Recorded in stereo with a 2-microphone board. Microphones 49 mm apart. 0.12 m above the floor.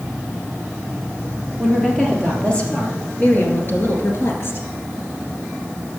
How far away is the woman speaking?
About 3 m.